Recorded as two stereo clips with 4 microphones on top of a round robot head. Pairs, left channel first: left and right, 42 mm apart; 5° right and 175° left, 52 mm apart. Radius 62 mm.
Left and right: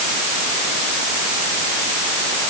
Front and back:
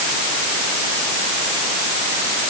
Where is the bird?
No bird in this recording.